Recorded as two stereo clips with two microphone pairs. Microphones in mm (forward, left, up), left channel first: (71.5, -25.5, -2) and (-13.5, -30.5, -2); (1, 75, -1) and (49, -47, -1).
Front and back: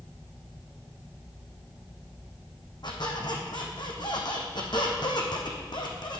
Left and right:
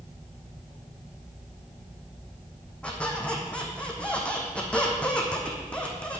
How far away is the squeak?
About 2 m.